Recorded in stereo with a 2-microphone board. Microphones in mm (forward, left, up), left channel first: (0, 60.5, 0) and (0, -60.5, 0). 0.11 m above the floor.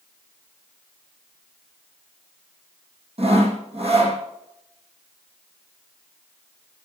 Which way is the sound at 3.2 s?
55° right (ahead or behind).